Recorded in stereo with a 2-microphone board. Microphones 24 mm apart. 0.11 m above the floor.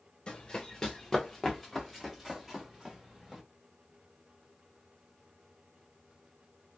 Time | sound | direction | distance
0.3 | running footsteps | 30° left (ahead or behind) | 1.2 m